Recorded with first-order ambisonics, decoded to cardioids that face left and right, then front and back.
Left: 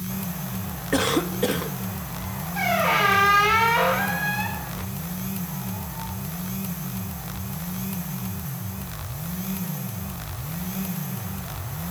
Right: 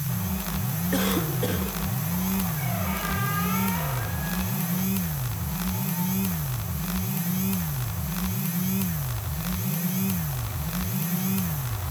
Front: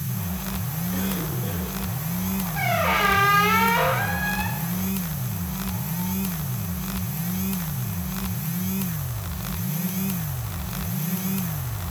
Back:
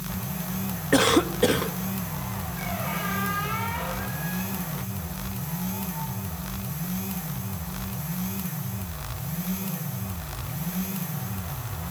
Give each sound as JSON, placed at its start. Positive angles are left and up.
{"t": 0.9, "sound": "a cough", "azimuth_deg": 160, "distance_m": 1.8}
{"t": 2.5, "sound": "a squeak", "azimuth_deg": 45, "distance_m": 1.0}